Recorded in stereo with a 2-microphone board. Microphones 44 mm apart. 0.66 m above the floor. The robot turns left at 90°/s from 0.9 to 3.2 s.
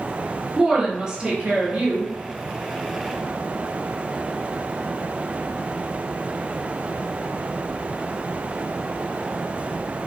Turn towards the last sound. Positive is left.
turn(degrees=135)